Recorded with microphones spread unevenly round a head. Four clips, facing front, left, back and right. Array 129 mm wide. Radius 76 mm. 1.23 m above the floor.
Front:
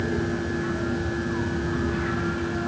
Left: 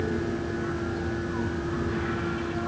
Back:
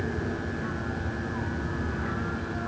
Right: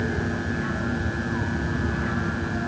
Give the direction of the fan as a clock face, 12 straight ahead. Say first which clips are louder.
Right 1 dB, front 5 dB; 2 o'clock.